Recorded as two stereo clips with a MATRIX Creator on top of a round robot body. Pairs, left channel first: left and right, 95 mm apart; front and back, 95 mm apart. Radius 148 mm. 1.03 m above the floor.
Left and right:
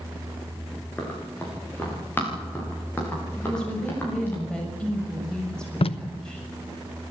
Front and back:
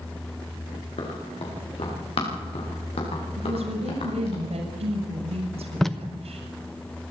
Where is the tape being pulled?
90° left, 1.1 m.